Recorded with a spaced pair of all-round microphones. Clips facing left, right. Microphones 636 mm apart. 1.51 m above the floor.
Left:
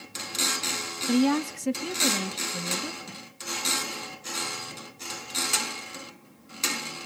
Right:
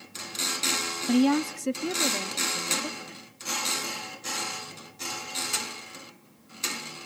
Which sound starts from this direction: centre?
A woman speaking, at 1.1 s.